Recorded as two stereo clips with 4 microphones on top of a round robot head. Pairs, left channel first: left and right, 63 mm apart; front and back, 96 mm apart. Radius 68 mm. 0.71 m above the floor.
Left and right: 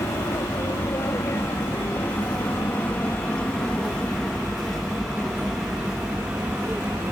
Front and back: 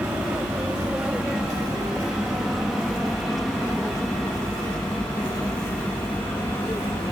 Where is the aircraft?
105° left; by 7.1 s 50° right.